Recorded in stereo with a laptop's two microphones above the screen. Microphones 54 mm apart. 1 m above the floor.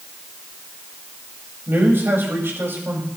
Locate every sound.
1.7 s a man speaking: 45° right (ahead or behind), 5 m